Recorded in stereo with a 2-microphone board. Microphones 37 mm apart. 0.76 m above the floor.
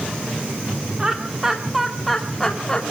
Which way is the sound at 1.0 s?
25° right (ahead or behind).